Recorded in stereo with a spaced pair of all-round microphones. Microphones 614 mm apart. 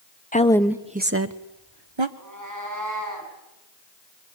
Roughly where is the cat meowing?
Right.